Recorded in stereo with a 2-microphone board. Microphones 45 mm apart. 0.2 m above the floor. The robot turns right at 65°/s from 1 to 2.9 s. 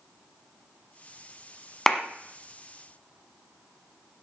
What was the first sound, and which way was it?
A clap, 10° left (ahead or behind).